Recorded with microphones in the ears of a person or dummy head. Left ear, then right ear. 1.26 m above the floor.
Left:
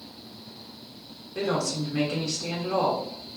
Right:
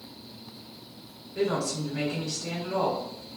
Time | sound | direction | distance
1.4 | a woman speaking | 70° left (ahead or behind) | 1.2 m